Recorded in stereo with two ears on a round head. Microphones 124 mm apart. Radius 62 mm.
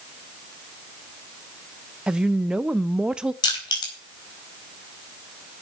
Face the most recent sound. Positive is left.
turn(degrees=30)  # may be behind; listen again after turning